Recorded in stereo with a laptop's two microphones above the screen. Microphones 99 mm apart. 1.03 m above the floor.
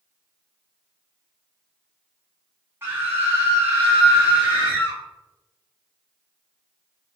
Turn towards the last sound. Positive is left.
turn(degrees=-20)  # may be behind; listen again after turning